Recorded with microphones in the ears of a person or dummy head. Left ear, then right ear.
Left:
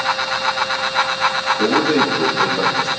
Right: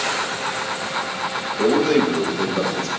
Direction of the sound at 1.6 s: 70° right (ahead or behind).